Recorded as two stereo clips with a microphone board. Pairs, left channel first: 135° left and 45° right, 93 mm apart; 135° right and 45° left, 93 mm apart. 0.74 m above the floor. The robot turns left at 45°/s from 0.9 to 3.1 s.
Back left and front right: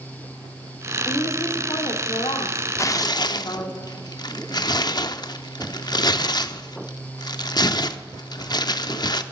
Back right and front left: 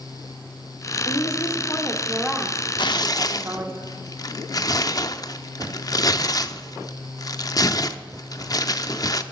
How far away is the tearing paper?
About 0.5 m.